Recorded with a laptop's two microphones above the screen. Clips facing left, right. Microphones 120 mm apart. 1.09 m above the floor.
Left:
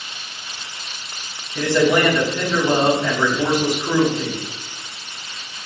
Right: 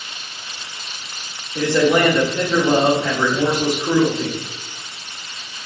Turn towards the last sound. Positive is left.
turn(degrees=-25)  # may be behind; listen again after turning